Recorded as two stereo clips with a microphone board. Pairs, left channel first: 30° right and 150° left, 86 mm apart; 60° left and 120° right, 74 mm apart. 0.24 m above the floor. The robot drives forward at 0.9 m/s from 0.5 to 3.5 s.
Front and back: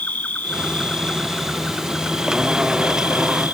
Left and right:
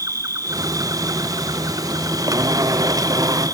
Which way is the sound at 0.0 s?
95° right.